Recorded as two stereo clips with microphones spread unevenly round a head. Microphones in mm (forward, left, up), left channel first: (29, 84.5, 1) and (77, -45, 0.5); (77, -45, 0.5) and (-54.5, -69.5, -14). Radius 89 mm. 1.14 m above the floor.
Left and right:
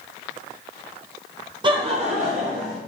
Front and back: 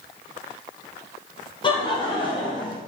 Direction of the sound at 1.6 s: 35° right.